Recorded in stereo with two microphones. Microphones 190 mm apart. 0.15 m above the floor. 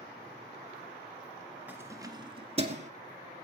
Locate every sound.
1.7 s keys jangling: 10° right (ahead or behind), 1.5 m; by 2.9 s 40° right (ahead or behind), 1.8 m